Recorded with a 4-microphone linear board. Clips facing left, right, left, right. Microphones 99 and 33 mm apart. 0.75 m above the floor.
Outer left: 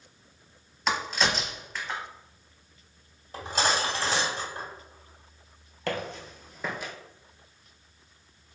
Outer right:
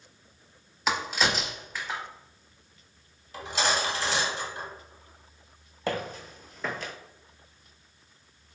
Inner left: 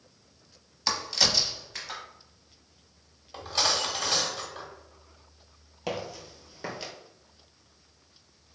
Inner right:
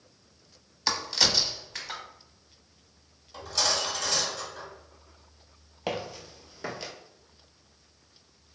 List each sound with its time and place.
0.9 s a crack: 5° right (ahead or behind), 0.7 m
3.3 s cutlery clinking: 45° left (ahead or behind), 1.0 m
5.9 s footsteps: 15° right (ahead or behind), 0.9 m; by 6.9 s 15° left (ahead or behind), 0.7 m